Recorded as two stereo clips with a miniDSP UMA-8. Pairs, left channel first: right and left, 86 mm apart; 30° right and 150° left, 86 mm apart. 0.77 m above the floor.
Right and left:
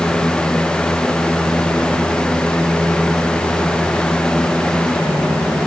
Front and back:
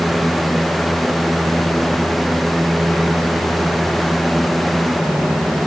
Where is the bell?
I don't hear a bell.